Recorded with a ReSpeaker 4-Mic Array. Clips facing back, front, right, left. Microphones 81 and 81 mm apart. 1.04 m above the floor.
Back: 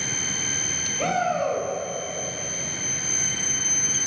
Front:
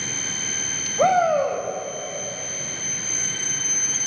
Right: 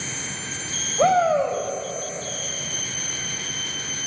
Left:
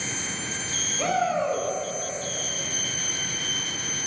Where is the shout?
40° right, 5 m.